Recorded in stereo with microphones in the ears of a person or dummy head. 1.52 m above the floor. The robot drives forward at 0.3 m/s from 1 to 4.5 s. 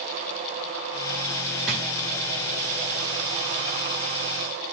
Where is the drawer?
Centre (ahead or behind), 1.7 m.